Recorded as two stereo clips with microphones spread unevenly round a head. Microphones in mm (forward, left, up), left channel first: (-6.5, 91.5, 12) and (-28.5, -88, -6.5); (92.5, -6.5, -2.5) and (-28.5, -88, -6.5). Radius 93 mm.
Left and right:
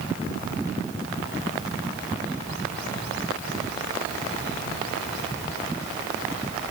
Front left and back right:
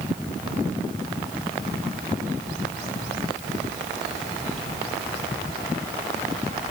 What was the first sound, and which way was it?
Only background noise.